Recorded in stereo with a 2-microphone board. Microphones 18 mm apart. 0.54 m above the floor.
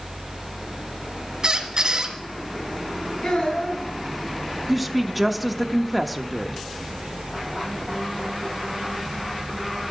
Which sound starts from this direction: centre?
A woman speaking, at 4.7 s.